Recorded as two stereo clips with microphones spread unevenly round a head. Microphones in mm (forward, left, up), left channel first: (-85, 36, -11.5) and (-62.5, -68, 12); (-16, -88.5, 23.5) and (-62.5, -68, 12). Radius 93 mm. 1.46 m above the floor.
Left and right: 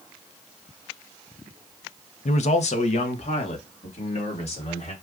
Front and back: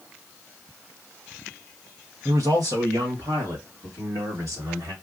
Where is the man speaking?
115° left, 0.6 m; by 4.9 s 125° left, 2.5 m.